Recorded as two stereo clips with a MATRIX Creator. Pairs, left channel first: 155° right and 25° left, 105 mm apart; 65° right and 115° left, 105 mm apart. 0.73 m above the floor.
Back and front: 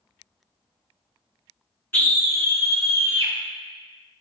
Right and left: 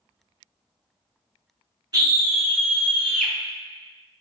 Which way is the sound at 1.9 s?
140° left.